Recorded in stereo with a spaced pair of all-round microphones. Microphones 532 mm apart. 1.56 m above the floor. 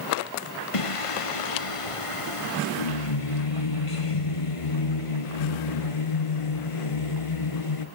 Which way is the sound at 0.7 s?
75° left (ahead or behind).